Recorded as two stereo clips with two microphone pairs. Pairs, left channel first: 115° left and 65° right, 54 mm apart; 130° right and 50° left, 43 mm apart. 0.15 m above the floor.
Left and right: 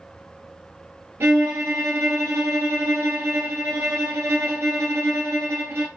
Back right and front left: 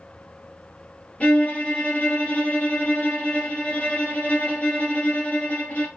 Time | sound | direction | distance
1.2 | a violin | 80° right | 1.2 m